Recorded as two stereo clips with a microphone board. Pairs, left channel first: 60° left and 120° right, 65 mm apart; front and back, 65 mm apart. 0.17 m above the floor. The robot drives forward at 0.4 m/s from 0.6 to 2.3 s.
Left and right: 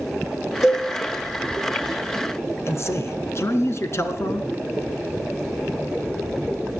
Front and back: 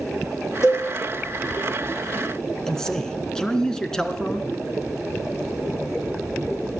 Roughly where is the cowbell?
Ahead left.